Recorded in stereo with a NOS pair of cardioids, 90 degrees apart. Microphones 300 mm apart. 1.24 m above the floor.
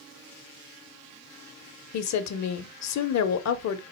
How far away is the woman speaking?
About 0.8 m.